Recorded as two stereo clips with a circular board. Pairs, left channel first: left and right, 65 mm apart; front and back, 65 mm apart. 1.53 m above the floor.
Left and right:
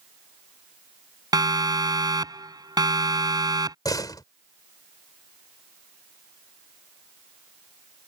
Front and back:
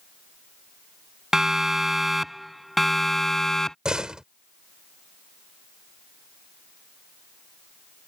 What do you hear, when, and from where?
1.3 s a siren: 100° right; by 3.8 s 85° right
3.9 s a door slam: 100° left